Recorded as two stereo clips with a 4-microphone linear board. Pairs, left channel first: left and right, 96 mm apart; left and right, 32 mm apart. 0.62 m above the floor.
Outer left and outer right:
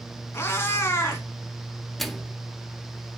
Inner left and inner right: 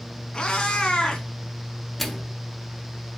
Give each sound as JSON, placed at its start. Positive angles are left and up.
{"t": 0.3, "sound": "a cat meowing", "side_deg": 25, "distance_m": 1.4}
{"t": 2.0, "sound": "a microwave", "side_deg": 0, "distance_m": 0.6}